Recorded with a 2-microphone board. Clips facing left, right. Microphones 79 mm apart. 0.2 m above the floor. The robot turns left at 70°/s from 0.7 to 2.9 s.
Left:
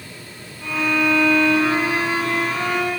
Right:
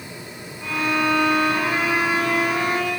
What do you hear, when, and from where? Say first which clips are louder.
0.6 s a violin: left 2 dB; 5° right, 5.5 m; by 2.9 s 160° right, 5.5 m